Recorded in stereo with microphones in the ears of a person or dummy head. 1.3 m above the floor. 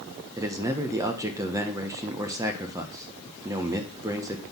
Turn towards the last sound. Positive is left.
turn(degrees=-20)  # may be behind; listen again after turning